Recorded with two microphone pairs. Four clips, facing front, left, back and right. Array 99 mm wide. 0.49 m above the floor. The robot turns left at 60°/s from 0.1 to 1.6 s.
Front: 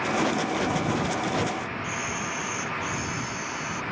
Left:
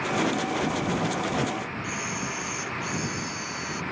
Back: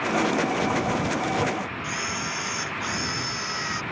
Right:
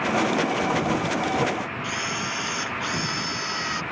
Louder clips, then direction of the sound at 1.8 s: Right 3 dB, even; 130° right.